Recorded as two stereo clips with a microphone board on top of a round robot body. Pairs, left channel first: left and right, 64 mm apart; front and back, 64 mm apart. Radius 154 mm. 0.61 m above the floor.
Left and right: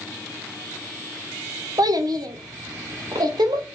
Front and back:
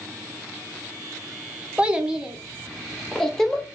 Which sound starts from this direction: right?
A child speaking, at 1.8 s.